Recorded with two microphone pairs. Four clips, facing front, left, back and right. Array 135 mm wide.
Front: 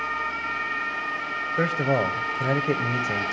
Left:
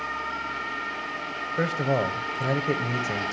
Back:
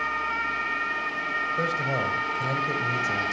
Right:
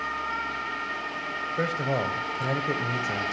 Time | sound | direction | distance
1.6 | a man speaking | 25° left | 1.0 m